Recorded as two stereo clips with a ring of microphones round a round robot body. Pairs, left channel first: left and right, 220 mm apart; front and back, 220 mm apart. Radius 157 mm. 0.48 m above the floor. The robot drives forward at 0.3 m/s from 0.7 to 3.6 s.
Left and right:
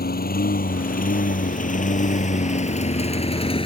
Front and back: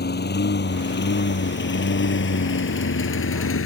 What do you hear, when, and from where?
0.0 s a lawn mower: 45° left; by 3.7 s 25° left